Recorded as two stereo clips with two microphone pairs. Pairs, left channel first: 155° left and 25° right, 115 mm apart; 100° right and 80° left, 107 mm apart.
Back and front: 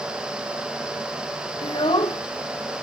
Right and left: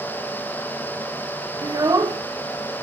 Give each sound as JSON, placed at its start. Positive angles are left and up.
{"t": 1.6, "sound": "a child speaking", "azimuth_deg": 130, "distance_m": 0.8}